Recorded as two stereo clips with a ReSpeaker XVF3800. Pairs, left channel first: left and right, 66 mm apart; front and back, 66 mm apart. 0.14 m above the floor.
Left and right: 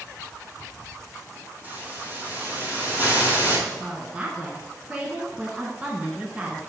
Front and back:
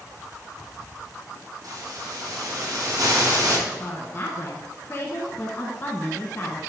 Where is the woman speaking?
30° right, 1.4 m.